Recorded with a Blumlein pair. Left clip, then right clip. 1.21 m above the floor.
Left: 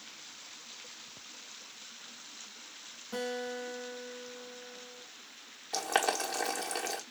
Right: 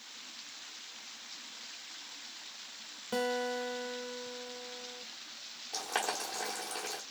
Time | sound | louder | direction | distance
3.1 | a guitar | right 3 dB | 65° right | 1.3 m
5.7 | boiling | left 5 dB | 20° left | 1.2 m